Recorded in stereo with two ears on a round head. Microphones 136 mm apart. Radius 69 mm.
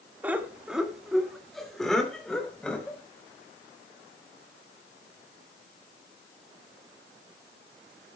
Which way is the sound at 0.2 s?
10° right (ahead or behind).